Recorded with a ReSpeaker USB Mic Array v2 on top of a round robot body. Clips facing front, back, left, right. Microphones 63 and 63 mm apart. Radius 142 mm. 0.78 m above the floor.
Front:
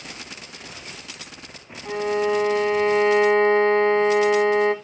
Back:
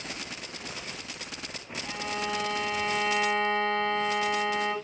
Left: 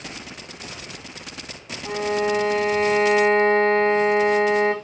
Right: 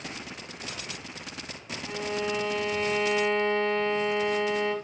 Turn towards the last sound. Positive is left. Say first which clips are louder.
# front 11 dB, left 8 dB
turn(degrees=55)